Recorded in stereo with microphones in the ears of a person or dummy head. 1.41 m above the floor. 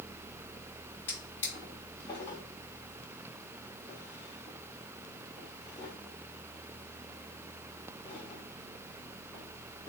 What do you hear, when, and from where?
1.1 s a drawer: 10° left (ahead or behind), 1.7 m